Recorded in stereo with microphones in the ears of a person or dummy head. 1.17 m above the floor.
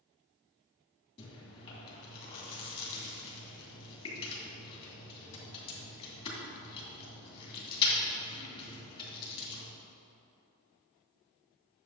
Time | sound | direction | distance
1.2 | chewing | 30° left (ahead or behind) | 2.5 m